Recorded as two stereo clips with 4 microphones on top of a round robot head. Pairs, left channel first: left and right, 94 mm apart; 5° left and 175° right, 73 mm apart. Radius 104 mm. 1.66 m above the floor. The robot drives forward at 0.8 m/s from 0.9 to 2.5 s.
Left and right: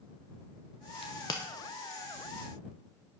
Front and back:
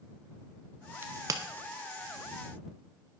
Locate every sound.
1.0 s a crack: 130° left, 0.6 m; by 1.4 s 155° left, 0.8 m